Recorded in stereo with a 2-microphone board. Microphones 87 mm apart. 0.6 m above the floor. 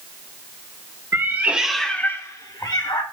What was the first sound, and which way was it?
A cat meowing, 35° right (ahead or behind).